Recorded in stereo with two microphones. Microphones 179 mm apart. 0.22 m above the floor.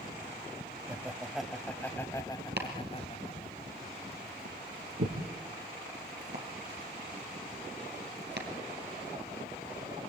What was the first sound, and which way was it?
Laughter, 10° right (ahead or behind).